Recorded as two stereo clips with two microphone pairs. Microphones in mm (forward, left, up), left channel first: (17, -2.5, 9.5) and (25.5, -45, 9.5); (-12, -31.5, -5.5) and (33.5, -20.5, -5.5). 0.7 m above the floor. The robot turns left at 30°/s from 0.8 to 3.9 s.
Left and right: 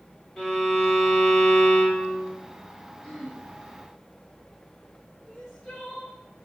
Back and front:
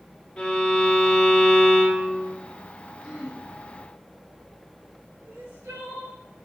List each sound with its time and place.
0.4 s a violin: 150° left, 1.0 m; by 2.4 s 105° left, 1.0 m
3.0 s throat clearing: 90° left, 1.3 m; by 3.4 s 80° left, 1.3 m
5.2 s crying: 25° left, 1.4 m